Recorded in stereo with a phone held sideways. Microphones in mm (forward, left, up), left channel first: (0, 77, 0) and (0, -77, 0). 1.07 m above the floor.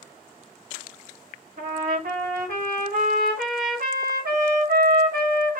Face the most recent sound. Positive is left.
turn(degrees=-65)  # may be behind; listen again after turning